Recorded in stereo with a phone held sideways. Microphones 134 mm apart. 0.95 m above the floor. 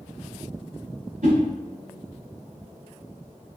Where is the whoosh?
85° right, 2 m.